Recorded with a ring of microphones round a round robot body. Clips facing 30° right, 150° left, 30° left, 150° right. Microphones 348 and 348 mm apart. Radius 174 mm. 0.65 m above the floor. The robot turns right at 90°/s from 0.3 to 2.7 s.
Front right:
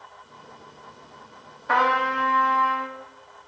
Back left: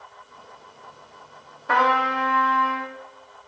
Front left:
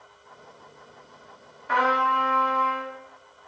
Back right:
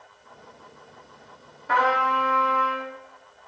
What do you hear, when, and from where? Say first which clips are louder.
1.7 s a trumpet: back left 2 dB, back right 1 dB; 165° left, 0.7 m; by 2.9 s 105° right, 0.7 m